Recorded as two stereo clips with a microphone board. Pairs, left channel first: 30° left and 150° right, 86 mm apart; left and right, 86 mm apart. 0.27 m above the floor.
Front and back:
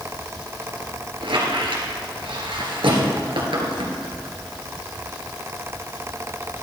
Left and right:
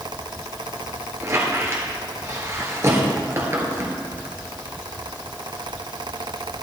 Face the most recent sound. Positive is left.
turn(degrees=-145)